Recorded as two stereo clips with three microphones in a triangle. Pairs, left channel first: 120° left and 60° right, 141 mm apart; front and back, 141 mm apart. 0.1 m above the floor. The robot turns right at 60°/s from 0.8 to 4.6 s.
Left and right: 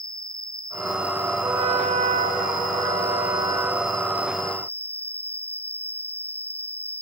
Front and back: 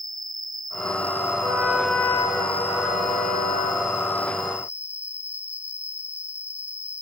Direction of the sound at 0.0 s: 155° right.